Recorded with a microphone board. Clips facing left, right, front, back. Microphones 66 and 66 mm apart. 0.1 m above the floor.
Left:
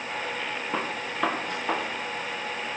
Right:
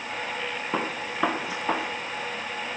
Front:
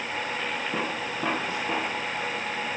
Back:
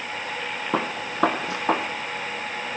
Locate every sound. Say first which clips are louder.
0.7 s a gunshot: right 2 dB, back 3 dB; 175° right, 2.5 m